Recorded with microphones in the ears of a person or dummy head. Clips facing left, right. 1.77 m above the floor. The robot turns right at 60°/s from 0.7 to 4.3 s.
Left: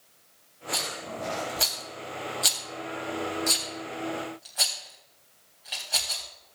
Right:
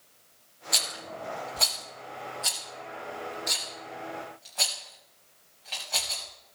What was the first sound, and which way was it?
A rattle, 35° right (ahead or behind).